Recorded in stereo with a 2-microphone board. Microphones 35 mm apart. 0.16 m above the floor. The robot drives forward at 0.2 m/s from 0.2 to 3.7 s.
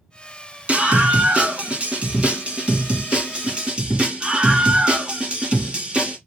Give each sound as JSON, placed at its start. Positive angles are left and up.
{"t": 0.7, "sound": "a scream", "side_deg": -40, "distance_m": 1.3}